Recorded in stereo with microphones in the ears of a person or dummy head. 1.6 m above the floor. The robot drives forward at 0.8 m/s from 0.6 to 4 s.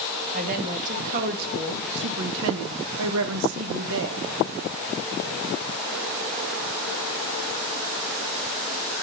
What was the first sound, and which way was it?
A woman speaking, 40° right (ahead or behind).